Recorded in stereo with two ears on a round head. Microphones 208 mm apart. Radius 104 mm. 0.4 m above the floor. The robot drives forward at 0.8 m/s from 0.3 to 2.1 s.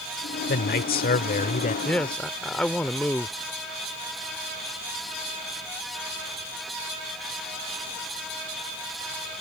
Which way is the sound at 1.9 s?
5° left (ahead or behind).